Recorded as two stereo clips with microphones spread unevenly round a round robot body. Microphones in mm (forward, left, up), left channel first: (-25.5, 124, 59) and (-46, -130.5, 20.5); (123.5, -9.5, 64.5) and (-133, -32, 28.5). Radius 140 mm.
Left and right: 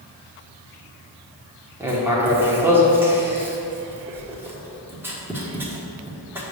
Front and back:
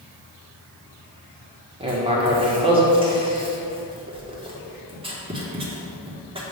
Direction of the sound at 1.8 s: 150° right.